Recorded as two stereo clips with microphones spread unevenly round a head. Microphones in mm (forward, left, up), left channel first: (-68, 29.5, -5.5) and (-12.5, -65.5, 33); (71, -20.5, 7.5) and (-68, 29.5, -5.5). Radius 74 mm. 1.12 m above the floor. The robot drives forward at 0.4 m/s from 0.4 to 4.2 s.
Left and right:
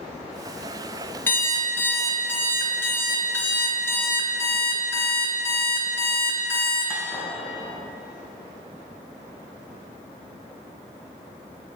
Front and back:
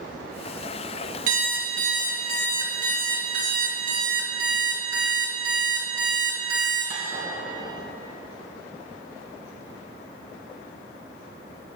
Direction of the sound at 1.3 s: 160° right.